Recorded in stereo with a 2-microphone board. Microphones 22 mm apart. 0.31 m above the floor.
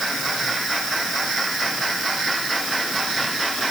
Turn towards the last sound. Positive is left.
No sound to turn to.